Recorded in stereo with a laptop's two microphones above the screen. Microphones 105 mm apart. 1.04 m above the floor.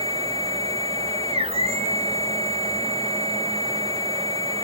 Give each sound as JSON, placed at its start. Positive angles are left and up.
{"t": 0.0, "sound": "a machine running", "side_deg": -70, "distance_m": 1.7}